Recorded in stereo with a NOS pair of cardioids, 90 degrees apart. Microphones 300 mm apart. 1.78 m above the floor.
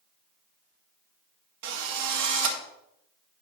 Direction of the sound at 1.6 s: 70° right.